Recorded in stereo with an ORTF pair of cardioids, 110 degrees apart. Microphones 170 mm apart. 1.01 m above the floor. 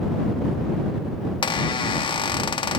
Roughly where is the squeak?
Ahead left.